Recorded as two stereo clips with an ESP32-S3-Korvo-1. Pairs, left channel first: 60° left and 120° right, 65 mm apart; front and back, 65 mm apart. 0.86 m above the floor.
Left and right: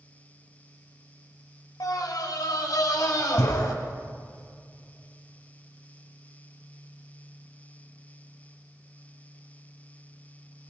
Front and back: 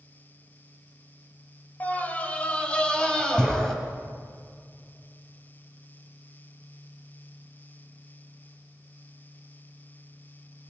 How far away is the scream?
About 4 m.